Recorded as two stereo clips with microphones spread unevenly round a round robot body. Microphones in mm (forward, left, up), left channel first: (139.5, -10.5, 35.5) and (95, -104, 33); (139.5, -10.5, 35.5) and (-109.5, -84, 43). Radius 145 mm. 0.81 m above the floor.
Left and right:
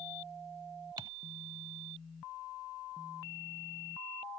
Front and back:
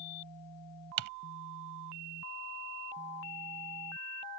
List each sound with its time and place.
1.0 s typing on a keyboard: 170° left